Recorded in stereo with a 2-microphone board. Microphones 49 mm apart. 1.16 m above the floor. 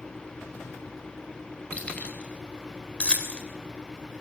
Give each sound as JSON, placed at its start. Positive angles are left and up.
{"t": 1.7, "sound": "keys jangling", "side_deg": 30, "distance_m": 4.5}